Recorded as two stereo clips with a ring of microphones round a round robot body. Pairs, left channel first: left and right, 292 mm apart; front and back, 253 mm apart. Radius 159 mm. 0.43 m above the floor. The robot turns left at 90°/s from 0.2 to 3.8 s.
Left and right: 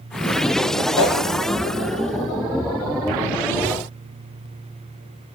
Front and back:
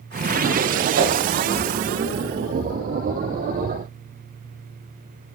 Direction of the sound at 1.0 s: 140° left.